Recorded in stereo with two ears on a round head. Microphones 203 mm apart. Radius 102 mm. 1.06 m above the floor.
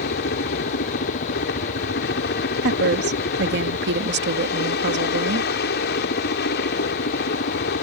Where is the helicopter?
45° left (ahead or behind).